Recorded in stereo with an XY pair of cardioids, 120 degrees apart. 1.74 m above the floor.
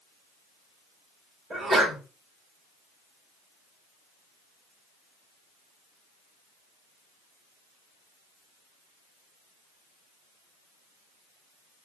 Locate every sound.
1.5 s a sneeze: 15° right, 1.6 m